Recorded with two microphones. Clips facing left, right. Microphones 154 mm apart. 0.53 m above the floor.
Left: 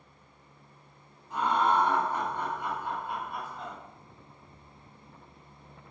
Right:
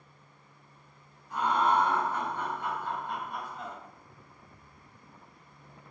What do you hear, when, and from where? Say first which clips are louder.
1.3 s laughter: even; 25° left (ahead or behind), 1.7 m; by 3.8 s 5° right (ahead or behind), 1.3 m